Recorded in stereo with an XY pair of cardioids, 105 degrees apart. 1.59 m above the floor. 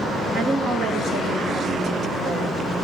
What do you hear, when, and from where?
0.3 s a woman speaking: 60° right, 2 m